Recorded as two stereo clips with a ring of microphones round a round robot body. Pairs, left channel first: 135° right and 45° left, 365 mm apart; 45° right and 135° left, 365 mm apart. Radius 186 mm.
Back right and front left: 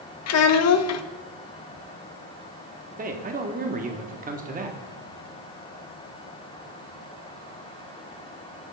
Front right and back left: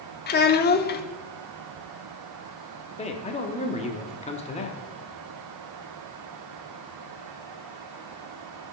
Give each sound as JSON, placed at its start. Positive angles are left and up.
{"t": 0.3, "sound": "a child speaking", "azimuth_deg": -100, "distance_m": 0.6}
{"t": 3.0, "sound": "a man speaking", "azimuth_deg": 5, "distance_m": 0.9}